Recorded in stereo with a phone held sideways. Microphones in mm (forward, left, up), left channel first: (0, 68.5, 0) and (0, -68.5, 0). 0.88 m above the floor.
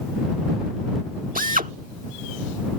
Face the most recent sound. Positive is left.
turn(degrees=-85)